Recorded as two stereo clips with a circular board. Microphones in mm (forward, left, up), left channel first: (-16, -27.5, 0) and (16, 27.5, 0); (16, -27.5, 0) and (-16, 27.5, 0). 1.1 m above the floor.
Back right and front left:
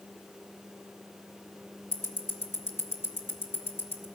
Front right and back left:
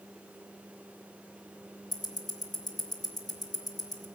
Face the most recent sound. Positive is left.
turn(degrees=-65)